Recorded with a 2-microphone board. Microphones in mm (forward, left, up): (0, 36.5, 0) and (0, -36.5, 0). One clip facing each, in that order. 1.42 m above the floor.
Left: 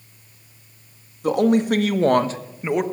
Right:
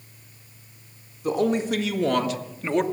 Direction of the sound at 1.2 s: 80° left.